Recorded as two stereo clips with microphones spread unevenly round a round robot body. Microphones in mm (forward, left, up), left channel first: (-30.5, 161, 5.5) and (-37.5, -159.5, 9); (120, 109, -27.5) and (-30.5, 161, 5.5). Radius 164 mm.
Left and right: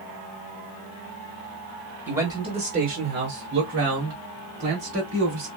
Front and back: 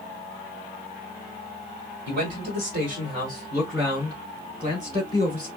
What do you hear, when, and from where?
2.1 s a man speaking: 175° right, 1.4 m; by 5.5 s 90° right, 3 m